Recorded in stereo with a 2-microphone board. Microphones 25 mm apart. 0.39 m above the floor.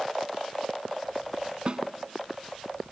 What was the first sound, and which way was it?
A snare drum, 45° right (ahead or behind).